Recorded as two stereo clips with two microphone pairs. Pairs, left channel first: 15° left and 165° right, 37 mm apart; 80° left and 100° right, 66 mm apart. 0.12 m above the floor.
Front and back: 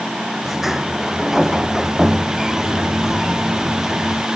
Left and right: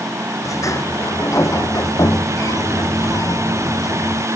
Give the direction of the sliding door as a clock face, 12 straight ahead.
8 o'clock.